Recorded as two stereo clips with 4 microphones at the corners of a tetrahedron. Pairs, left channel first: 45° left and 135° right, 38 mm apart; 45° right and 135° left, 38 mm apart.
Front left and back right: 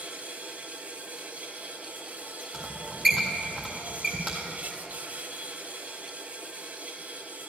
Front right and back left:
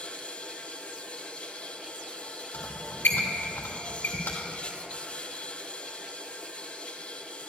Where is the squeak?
40° right, 2.5 m.